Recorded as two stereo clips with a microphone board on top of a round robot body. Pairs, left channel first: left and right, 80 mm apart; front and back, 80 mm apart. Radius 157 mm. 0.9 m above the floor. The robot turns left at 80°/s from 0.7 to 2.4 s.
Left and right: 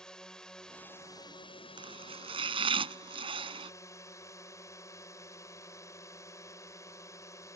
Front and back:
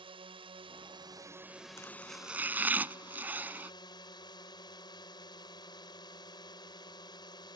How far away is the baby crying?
I don't hear a baby crying.